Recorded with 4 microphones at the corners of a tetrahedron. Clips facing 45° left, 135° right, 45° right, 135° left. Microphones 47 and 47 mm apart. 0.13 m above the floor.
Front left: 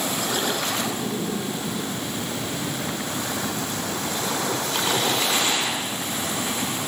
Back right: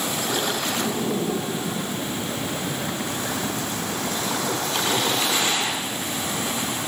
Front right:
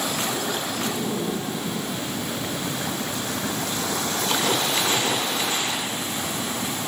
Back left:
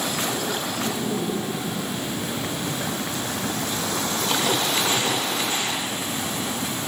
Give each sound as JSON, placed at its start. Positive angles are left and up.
{"t": 0.6, "sound": "laughter", "azimuth_deg": -130, "distance_m": 5.0}